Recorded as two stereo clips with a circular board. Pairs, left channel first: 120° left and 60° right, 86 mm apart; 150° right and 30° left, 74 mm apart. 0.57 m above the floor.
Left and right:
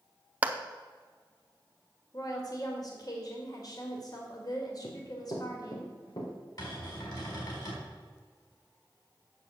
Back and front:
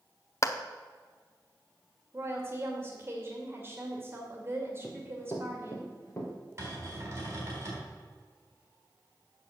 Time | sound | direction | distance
0.4 | a clap | 125° right | 0.7 m
2.1 | a woman speaking | 85° left | 2 m
4.8 | running footsteps | 150° left | 2 m
6.6 | a cupboard door | 85° left | 4 m